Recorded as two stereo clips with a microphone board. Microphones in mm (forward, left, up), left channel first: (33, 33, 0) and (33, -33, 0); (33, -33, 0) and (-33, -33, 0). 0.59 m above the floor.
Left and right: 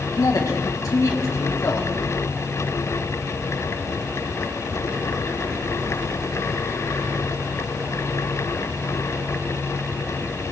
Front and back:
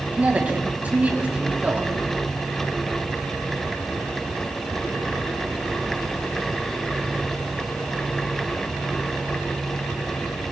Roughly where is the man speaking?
Behind left.